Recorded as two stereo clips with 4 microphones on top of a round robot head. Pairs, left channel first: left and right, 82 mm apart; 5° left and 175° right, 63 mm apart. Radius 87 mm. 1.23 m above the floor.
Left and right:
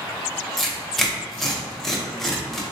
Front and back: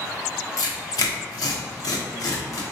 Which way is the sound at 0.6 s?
5° left.